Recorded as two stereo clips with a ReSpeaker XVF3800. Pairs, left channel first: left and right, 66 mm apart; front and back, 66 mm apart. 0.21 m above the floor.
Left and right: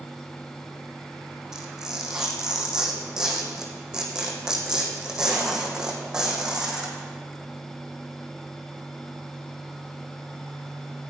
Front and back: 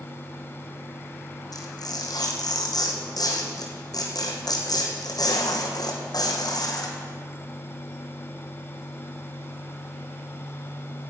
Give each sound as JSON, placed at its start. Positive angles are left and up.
{"t": 1.5, "sound": "tearing paper", "azimuth_deg": -10, "distance_m": 2.0}